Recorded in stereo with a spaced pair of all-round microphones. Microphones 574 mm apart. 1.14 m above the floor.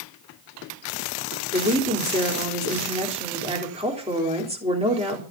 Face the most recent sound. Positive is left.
turn(degrees=-10)  # may be behind; listen again after turning